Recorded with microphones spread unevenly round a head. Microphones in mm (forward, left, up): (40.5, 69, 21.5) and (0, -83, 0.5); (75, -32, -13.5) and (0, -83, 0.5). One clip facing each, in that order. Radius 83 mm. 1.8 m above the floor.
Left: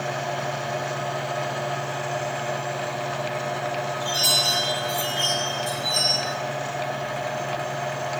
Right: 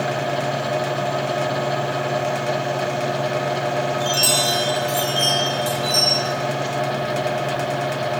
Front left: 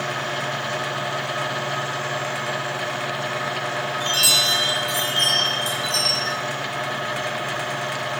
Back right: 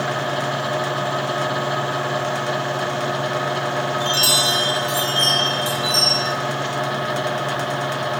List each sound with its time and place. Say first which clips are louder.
4.0 s a chime: right 6 dB, back right 4 dB; 80° right, 5 m